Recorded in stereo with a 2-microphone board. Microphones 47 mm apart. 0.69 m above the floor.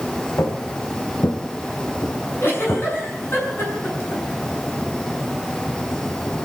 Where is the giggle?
55° left (ahead or behind), 7.5 m.